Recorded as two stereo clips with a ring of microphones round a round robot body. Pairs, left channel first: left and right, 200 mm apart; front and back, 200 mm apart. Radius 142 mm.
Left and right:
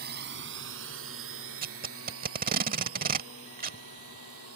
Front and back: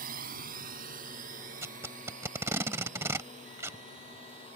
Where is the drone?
130° right; by 4.6 s 110° right.